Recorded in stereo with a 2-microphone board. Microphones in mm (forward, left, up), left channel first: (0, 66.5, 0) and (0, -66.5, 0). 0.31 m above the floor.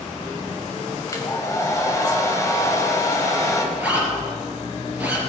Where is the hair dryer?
25° left (ahead or behind), 1.7 m.